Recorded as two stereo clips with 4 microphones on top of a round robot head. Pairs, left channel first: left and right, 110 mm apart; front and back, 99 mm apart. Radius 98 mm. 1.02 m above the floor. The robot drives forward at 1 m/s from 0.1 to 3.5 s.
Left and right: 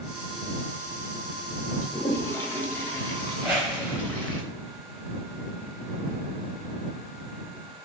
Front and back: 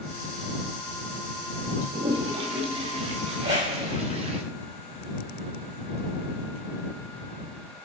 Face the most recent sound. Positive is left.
turn(degrees=-170)